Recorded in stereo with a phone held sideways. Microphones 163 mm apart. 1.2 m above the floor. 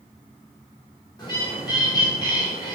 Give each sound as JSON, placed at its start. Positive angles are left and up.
{"t": 1.2, "sound": "a bird", "side_deg": 25, "distance_m": 0.8}